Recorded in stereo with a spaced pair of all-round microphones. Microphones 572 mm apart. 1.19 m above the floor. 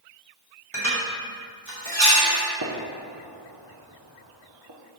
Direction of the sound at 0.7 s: 55° right (ahead or behind).